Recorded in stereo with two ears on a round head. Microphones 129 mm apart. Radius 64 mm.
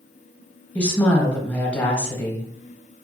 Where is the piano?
No piano in this recording.